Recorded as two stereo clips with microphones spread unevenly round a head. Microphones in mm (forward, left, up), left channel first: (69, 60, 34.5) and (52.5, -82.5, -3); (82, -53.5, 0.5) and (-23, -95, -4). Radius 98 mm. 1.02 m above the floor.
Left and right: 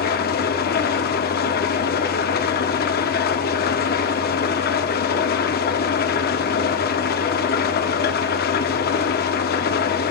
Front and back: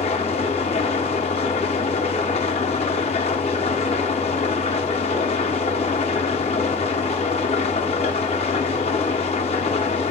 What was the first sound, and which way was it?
An engine running, 80° left.